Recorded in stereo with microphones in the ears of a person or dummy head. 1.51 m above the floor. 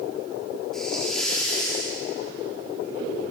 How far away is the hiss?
About 4.5 m.